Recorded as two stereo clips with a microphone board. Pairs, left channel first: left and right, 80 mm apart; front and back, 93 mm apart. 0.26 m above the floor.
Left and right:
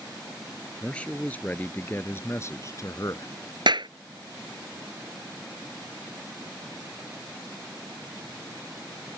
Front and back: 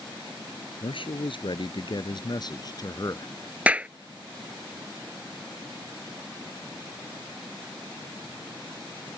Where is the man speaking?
15° left; by 3.3 s 50° left.